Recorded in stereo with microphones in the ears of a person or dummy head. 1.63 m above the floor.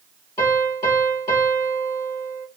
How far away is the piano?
About 3.5 m.